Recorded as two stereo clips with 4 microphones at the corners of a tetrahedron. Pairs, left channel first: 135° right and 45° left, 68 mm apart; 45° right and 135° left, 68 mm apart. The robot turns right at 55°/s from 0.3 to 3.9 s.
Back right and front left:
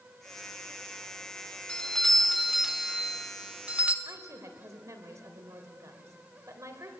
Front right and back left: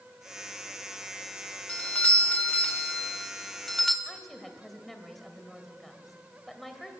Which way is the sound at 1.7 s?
85° right.